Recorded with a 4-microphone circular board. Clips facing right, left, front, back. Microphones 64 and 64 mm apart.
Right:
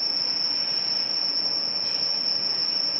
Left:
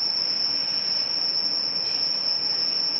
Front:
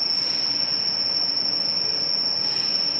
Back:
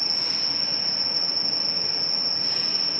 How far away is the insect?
About 2.5 m.